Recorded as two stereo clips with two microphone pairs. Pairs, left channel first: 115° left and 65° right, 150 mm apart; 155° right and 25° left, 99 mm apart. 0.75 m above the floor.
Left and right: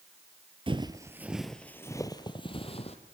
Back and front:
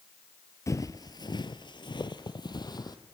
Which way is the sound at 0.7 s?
105° right.